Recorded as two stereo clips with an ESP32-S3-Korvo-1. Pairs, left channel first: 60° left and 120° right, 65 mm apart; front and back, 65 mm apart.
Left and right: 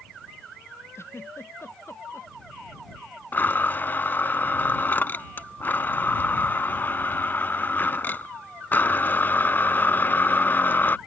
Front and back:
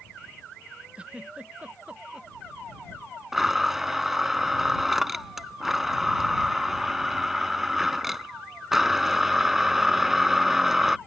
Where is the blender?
95° left.